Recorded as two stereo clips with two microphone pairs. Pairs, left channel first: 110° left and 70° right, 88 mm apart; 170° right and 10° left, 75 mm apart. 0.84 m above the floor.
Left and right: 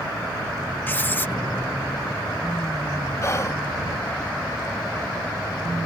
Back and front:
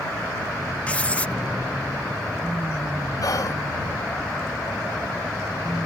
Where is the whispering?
165° left.